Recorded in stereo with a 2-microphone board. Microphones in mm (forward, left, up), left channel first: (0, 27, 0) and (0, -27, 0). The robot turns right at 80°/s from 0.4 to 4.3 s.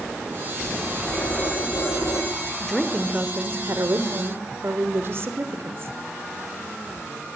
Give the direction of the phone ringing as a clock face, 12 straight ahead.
11 o'clock.